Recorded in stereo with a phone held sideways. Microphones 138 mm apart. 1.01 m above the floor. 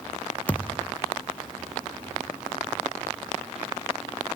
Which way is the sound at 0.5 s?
10° left (ahead or behind).